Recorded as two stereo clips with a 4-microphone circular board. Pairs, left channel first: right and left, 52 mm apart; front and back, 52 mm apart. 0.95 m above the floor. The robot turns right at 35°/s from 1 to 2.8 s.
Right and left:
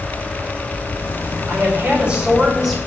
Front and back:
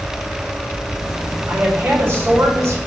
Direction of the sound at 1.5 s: 135° left.